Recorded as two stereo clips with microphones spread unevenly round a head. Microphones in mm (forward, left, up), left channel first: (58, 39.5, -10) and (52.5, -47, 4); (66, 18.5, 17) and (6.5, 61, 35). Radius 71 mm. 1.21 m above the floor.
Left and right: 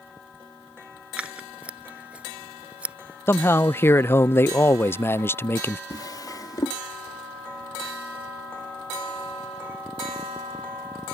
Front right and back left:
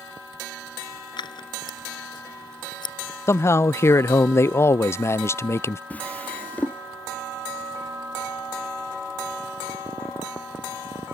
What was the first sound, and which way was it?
Scissors, 20° right.